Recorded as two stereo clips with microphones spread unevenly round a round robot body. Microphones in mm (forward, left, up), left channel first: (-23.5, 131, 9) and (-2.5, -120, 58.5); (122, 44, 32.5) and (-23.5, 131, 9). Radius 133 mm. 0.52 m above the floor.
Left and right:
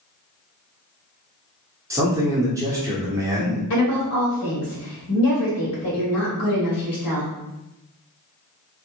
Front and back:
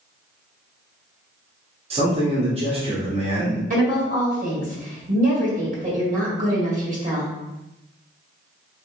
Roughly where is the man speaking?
Behind.